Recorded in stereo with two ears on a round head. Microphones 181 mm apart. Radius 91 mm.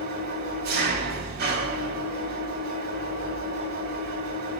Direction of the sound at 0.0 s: 50° right (ahead or behind).